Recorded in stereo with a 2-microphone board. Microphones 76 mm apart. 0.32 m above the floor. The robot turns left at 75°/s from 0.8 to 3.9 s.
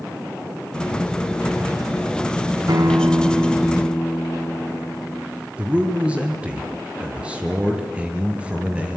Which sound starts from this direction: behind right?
A guitar, at 2.7 s.